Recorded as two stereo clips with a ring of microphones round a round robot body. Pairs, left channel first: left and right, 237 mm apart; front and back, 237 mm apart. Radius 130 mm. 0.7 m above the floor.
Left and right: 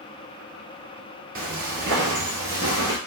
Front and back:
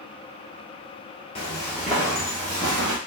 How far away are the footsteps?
About 0.9 m.